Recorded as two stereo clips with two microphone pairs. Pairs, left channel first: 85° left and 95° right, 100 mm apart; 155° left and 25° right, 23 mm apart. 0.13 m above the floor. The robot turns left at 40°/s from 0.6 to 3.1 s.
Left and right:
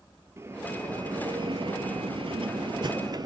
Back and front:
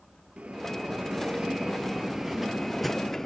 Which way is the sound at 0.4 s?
35° right.